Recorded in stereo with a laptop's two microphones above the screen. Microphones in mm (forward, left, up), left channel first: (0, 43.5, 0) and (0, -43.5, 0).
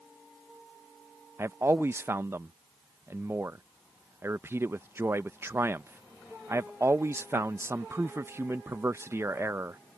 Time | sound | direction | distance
1.4 | a man speaking | 30° right (ahead or behind) | ?